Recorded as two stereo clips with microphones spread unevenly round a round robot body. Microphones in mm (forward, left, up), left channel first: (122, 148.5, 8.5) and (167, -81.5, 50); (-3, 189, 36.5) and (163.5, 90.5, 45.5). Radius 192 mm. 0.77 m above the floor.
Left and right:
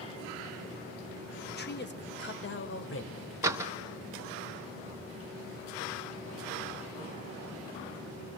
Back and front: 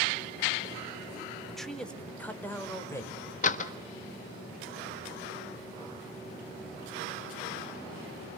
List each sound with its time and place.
1.5 s a man speaking: 60° left, 3.5 m; by 3.3 s 75° left, 5 m
3.4 s a door slam: 165° right, 0.9 m